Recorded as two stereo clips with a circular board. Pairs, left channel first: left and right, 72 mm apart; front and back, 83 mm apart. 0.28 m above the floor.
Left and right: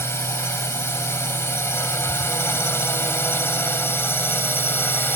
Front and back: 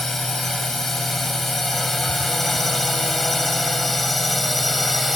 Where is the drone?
85° left; by 5.2 s 90° left.